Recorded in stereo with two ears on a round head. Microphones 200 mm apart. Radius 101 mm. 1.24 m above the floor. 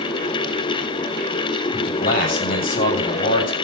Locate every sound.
1.7 s a man speaking: 40° left (ahead or behind), 6.5 m